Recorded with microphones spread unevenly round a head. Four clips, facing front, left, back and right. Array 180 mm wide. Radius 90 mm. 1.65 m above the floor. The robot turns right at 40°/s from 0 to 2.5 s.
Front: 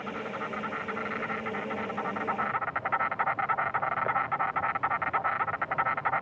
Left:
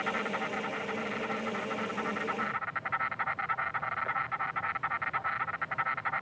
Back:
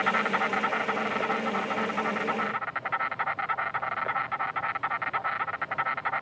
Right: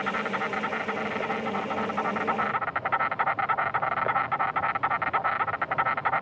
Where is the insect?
175° right; by 6.2 s 75° right.